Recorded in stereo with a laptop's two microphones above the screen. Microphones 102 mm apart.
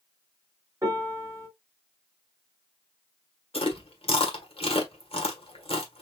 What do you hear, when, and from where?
0.8 s a piano: 30° right (ahead or behind), 2.5 m
3.5 s chewing: 65° left (ahead or behind), 1.5 m